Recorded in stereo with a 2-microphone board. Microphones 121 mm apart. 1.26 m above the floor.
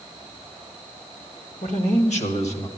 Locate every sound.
1.6 s a man speaking: 80° left, 1.6 m; by 2.7 s 60° left (ahead or behind), 1.9 m